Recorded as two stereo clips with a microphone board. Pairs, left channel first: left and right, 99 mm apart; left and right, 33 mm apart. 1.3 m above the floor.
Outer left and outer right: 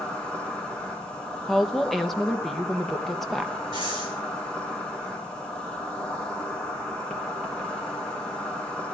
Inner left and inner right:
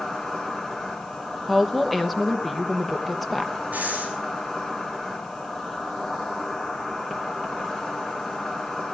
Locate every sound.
0.0 s an insect: 10° left (ahead or behind), 3.5 m
1.5 s a woman speaking: centre (ahead or behind), 1.0 m
3.7 s breathing: 50° right (ahead or behind), 6 m